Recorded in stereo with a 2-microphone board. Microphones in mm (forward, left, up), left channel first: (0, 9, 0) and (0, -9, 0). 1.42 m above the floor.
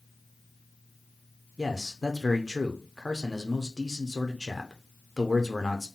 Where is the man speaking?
Centre (ahead or behind), 0.6 m.